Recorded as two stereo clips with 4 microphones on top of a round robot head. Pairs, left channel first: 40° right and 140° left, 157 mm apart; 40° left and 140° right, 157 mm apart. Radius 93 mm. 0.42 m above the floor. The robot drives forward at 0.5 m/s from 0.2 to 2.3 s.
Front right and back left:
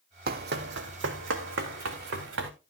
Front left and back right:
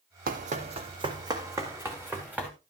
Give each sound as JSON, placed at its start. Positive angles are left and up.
{"t": 0.3, "sound": "running footsteps", "azimuth_deg": 180, "distance_m": 1.2}